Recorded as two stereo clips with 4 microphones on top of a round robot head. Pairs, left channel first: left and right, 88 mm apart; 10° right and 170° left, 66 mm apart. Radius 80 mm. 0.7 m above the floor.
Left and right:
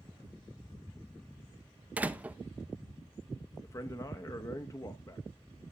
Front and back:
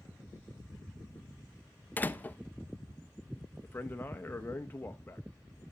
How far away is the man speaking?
About 1.0 m.